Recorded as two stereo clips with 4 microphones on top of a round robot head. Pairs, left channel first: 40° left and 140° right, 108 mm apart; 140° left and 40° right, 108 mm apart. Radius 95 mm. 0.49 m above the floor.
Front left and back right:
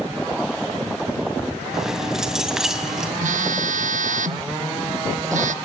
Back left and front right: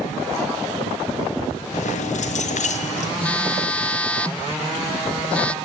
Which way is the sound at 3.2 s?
140° right.